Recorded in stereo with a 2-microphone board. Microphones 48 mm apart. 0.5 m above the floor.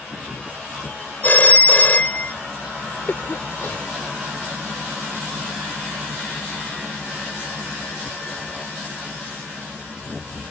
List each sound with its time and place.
1.2 s a phone ringing: 40° left (ahead or behind)
3.1 s a cough: 50° left (ahead or behind)